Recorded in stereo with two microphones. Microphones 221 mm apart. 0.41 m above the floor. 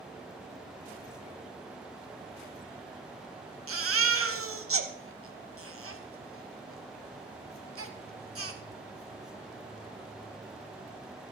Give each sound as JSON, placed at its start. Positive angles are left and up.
{"t": 3.7, "sound": "a baby crying", "side_deg": -80, "distance_m": 1.0}